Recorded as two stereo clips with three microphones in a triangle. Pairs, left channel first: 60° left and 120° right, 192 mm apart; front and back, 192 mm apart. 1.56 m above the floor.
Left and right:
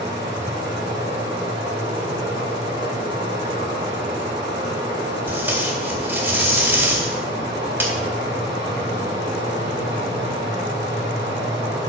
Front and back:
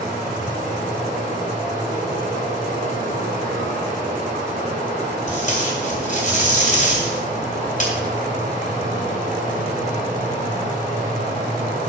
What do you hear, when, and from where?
0.0 s running water: 135° right, 4.5 m
5.3 s tape being pulled: 45° right, 2 m